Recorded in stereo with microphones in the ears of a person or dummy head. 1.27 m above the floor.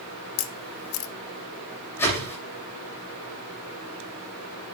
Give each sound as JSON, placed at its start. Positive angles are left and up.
{"t": 0.4, "sound": "a camera shutter", "side_deg": 80, "distance_m": 1.0}
{"t": 2.0, "sound": "a whoosh", "side_deg": 15, "distance_m": 8.5}